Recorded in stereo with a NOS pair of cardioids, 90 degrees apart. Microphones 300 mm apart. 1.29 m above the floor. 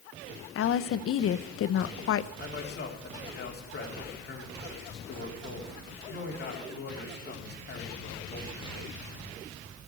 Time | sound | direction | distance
0.6 | a woman speaking | 50° left | 0.7 m
2.4 | a man speaking | 35° left | 3.5 m